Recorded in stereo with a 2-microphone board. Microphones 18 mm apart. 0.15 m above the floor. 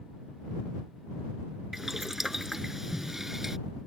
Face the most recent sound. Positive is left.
turn(degrees=-20)  # may be behind; listen again after turning